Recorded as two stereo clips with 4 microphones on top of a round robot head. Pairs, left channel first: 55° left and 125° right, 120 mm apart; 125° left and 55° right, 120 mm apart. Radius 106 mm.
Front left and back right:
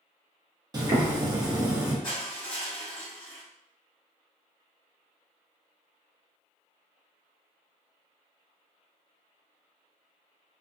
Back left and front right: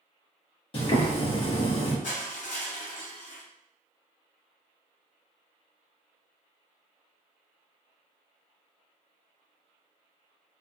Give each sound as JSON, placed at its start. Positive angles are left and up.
{"t": 0.7, "sound": "boiling", "azimuth_deg": 170, "distance_m": 1.0}
{"t": 2.0, "sound": "crushing", "azimuth_deg": 110, "distance_m": 1.0}